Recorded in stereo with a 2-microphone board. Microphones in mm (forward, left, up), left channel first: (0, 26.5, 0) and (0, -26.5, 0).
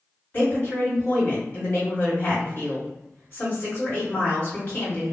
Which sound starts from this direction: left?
A woman speaking, at 0.3 s.